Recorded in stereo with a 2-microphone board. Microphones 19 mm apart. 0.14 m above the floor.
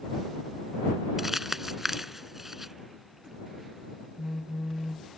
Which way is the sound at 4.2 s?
15° left (ahead or behind).